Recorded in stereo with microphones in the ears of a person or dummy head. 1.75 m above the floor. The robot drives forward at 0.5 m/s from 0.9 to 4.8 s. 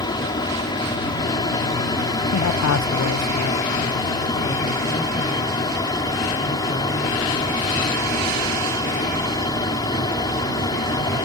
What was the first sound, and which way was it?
An aircraft, 20° left (ahead or behind).